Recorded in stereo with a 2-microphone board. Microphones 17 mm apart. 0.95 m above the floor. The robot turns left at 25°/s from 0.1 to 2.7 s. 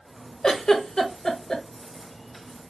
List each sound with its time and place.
0.4 s a giggle: 50° left (ahead or behind), 0.8 m; by 1.6 s 40° left (ahead or behind), 0.8 m